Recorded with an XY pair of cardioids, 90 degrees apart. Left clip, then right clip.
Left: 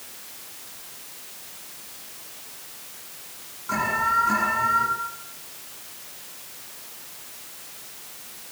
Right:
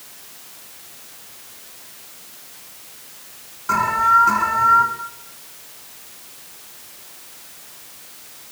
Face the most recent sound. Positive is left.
turn(degrees=-65)